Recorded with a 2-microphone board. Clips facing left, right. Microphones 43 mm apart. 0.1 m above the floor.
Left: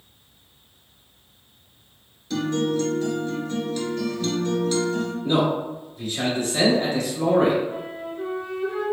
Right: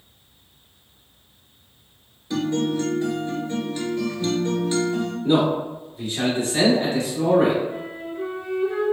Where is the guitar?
20° right (ahead or behind), 0.8 m.